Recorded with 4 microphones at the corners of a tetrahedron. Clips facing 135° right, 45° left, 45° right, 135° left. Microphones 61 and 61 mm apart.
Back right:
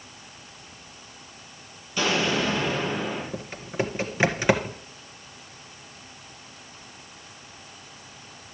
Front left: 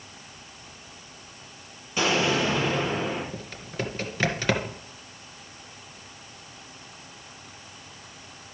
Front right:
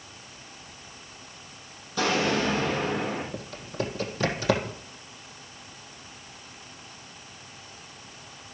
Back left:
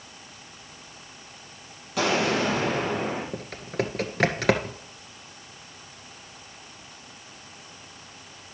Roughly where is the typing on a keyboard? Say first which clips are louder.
Back right 5 dB, back left 3 dB; behind left.